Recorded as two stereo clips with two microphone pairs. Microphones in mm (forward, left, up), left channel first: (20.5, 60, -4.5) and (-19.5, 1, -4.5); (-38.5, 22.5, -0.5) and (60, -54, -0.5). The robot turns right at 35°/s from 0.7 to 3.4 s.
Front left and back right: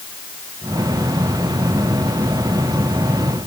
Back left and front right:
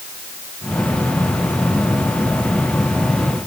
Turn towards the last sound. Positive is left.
No sound to turn to.